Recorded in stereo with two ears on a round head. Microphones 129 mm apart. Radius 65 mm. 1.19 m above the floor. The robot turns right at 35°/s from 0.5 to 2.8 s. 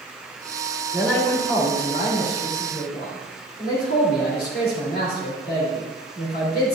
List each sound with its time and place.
0.9 s a man speaking: 5° left, 3 m; by 6.8 s 70° left, 3 m